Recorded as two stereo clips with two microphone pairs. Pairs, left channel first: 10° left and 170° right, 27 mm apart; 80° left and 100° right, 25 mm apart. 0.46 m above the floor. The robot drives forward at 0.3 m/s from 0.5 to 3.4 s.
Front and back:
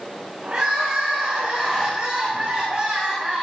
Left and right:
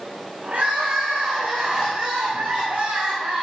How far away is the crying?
About 8.5 m.